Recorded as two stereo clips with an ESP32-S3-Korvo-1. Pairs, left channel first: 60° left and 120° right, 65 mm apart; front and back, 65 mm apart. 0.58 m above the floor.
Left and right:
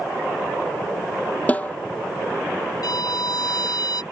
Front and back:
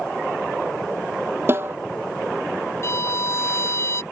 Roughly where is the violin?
Ahead left.